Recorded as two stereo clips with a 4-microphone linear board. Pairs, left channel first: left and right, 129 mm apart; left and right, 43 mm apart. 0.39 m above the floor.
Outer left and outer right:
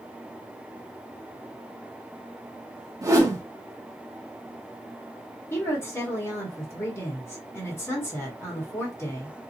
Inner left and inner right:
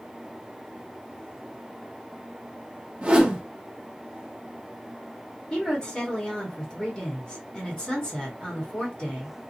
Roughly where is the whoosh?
Right.